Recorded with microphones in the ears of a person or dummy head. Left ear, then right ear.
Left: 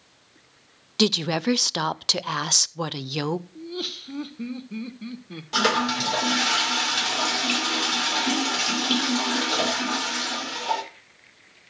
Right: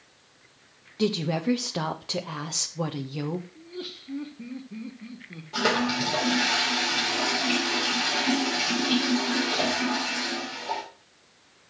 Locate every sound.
1.0 s a woman speaking: 65° left (ahead or behind), 0.6 m
3.5 s laughter: 80° left, 1.3 m
5.5 s a toilet flushing: 60° left (ahead or behind), 3 m